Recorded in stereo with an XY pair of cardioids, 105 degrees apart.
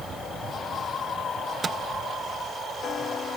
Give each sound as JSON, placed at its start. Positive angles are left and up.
{"t": 1.6, "sound": "a microwave", "azimuth_deg": -40, "distance_m": 0.7}